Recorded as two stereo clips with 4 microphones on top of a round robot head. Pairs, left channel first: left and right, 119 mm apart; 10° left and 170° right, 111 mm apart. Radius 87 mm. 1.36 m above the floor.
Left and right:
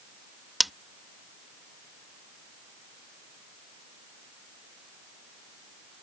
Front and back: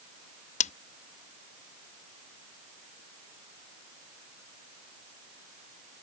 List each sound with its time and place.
0.6 s scissors: straight ahead